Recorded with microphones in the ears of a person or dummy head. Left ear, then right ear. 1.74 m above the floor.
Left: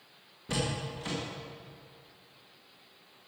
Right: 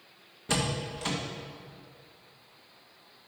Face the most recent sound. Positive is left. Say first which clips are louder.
# right 3 dB
turn(degrees=-25)  # may be behind; listen again after turning